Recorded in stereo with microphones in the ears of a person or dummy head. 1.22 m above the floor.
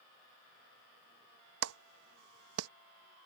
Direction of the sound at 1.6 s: 85° right.